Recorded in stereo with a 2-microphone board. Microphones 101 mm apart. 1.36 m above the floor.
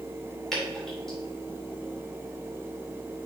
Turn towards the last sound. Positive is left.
turn(degrees=5)  # may be behind; listen again after turning